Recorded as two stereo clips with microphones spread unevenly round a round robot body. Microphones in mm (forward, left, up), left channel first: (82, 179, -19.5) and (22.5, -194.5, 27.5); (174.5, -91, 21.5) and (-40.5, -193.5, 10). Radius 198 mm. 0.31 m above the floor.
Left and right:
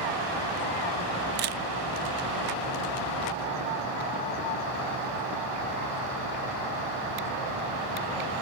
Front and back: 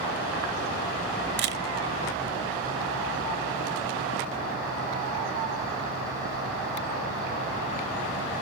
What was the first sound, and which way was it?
A camera shutter, 160° right.